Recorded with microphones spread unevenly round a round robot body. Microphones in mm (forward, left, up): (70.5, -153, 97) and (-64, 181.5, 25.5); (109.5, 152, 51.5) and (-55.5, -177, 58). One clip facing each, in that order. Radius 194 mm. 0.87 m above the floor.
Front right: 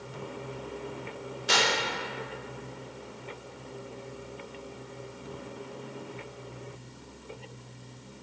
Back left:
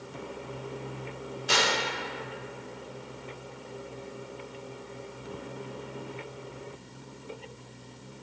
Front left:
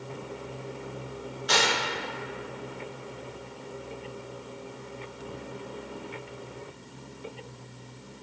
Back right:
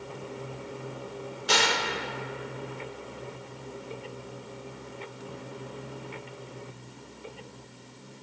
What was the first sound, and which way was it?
Tearing paper, 70° right.